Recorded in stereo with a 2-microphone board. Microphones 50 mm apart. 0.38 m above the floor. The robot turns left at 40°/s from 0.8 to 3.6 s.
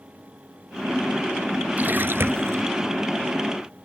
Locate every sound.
1.8 s a splash: 35° right; by 2.6 s 70° right